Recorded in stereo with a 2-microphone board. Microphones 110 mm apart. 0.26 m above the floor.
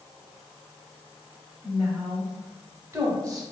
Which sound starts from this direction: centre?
A woman speaking, at 1.6 s.